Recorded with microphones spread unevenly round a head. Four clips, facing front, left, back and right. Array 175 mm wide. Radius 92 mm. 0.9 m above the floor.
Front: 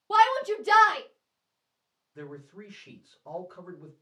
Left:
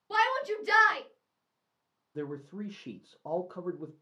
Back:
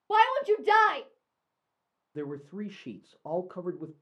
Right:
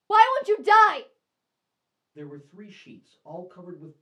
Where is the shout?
100° right, 0.6 m.